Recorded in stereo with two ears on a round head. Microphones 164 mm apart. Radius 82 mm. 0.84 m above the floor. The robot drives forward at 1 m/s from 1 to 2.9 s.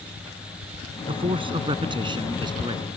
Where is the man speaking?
30° right (ahead or behind); by 2.9 s 25° right (ahead or behind).